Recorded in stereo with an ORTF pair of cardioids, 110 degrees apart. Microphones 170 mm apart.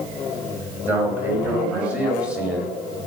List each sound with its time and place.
0.9 s a man speaking: 10° right, 7.5 m; by 3.0 s 5° right, 6.5 m